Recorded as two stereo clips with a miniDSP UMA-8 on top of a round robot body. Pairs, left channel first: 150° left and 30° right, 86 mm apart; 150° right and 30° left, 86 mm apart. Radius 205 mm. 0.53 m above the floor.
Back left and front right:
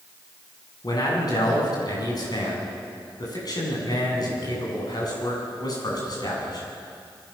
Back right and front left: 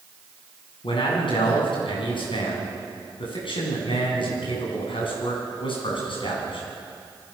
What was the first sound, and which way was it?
A man speaking, 170° right.